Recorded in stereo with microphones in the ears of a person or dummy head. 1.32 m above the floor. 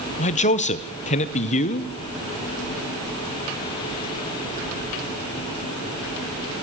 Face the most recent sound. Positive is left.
turn(degrees=40)  # may be behind; listen again after turning